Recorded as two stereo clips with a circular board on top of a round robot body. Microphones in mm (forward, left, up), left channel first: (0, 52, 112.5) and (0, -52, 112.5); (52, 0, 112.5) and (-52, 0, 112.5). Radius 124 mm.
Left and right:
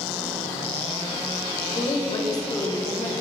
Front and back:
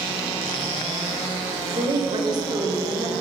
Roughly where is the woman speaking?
Behind left.